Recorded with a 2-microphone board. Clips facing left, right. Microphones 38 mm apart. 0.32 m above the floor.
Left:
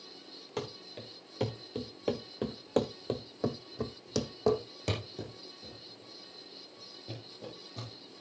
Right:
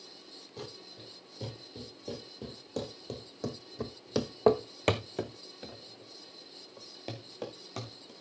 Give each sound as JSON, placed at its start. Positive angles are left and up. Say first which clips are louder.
{"t": 0.6, "sound": "running footsteps", "louder": "left 6 dB", "side_deg": 65, "distance_m": 2.5}